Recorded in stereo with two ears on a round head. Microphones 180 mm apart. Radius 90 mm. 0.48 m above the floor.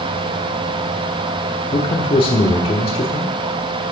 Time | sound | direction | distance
1.7 | a man speaking | 25° left (ahead or behind) | 1.1 m